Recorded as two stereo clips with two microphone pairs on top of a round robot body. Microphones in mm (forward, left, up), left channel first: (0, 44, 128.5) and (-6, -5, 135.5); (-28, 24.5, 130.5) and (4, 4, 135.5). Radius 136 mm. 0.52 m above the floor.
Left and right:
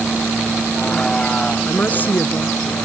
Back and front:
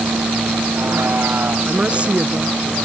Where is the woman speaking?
30° left.